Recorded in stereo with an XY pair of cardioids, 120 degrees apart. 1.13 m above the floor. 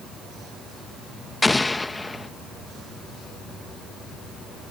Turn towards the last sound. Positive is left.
turn(degrees=15)